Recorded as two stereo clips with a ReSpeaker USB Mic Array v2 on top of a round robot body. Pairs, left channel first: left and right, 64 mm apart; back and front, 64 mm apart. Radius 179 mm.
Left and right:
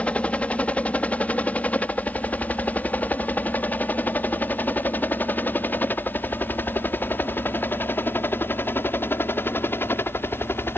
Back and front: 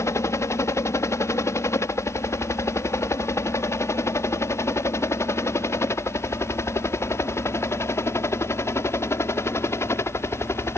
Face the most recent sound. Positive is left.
turn(degrees=140)